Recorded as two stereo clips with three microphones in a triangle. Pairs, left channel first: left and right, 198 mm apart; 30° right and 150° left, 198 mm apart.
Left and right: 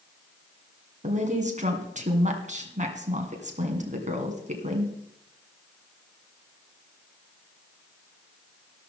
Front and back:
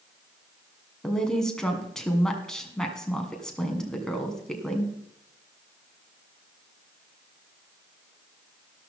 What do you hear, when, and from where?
1.0 s a woman speaking: 115° right, 2 m